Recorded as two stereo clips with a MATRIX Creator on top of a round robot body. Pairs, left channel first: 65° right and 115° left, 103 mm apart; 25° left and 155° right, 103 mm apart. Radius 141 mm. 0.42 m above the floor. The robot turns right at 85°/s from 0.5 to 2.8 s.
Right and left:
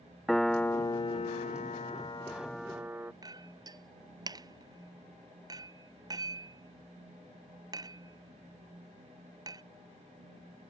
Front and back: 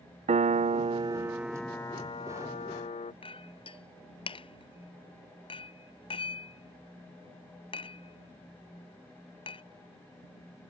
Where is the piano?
155° right; by 3.1 s 40° left.